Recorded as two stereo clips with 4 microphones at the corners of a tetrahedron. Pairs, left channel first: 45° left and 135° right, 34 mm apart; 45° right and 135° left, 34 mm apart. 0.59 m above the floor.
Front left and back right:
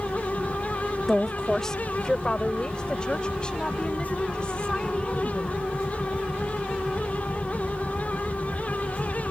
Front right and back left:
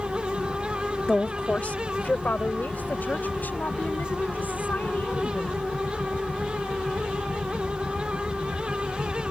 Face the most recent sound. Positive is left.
turn(degrees=-15)